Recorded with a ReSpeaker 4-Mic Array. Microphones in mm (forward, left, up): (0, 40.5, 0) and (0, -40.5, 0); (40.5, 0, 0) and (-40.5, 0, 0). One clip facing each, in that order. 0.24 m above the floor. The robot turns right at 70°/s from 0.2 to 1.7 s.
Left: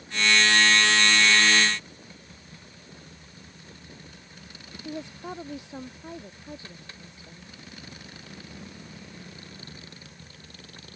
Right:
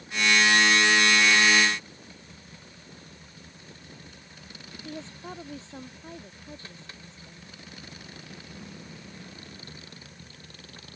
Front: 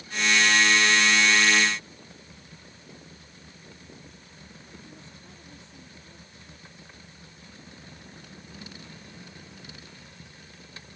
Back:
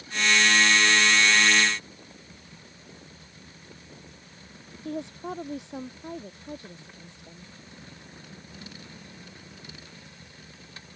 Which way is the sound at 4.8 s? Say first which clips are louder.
Left 4 dB, back 15 dB; 165° left.